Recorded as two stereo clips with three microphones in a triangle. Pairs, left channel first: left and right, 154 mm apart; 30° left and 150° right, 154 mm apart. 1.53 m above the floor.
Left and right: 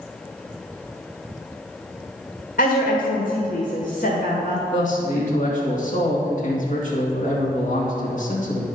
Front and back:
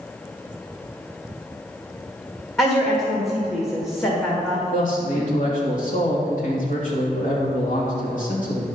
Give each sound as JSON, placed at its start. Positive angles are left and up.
{"t": 2.6, "sound": "a woman speaking", "azimuth_deg": 100, "distance_m": 1.7}
{"t": 4.7, "sound": "a man speaking", "azimuth_deg": 60, "distance_m": 2.5}